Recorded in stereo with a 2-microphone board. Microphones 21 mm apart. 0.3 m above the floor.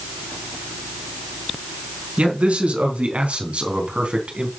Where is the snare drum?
I don't hear a snare drum.